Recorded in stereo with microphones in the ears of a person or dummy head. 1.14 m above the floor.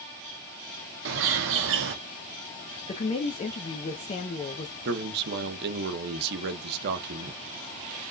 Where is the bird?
55° right (ahead or behind), 0.8 m.